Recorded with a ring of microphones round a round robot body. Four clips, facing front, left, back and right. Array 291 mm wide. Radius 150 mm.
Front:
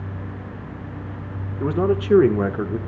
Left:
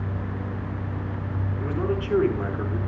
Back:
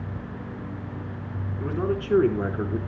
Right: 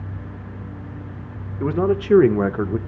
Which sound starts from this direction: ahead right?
A man speaking, at 1.6 s.